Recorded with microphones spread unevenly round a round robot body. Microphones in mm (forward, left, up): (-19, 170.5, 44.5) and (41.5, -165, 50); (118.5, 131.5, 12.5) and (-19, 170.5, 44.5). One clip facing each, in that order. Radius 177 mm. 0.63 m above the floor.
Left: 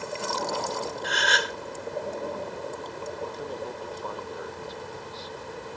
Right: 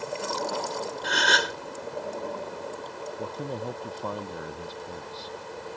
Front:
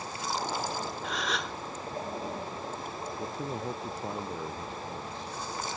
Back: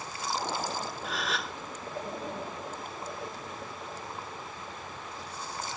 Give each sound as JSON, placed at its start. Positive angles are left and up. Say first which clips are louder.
{"t": 1.0, "sound": "a gasp", "louder": "right 1 dB, front 1 dB", "azimuth_deg": -100}
{"t": 3.2, "sound": "a man speaking", "louder": "right 2 dB, front 5 dB", "azimuth_deg": -70}